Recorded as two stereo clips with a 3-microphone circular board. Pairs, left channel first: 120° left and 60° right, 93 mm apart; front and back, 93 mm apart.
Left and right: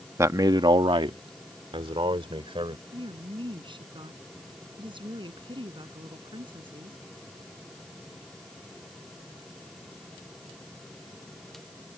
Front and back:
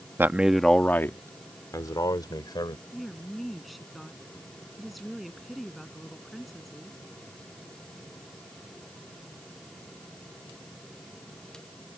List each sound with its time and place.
0.2 s a man speaking: 115° right; by 2.8 s 40° right
2.9 s a woman speaking: 90° right